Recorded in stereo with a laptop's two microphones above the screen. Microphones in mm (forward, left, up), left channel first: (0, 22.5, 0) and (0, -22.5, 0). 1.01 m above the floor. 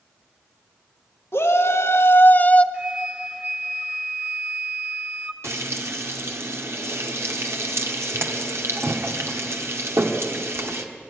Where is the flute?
25° right (ahead or behind), 1.2 m.